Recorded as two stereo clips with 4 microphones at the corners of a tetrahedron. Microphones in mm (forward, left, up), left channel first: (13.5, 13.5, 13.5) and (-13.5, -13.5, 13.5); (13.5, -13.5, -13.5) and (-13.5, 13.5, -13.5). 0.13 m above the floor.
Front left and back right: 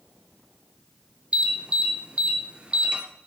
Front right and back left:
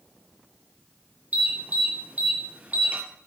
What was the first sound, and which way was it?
An alarm, 170° left.